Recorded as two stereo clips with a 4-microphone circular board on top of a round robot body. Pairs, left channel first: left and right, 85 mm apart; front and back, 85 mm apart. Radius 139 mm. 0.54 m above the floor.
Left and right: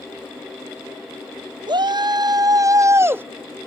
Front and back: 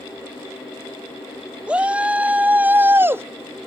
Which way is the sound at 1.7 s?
105° right.